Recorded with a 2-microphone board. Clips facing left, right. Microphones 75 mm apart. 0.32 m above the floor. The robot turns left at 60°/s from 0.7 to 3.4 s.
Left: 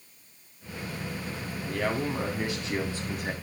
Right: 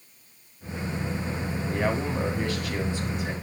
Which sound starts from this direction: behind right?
A man speaking, at 1.7 s.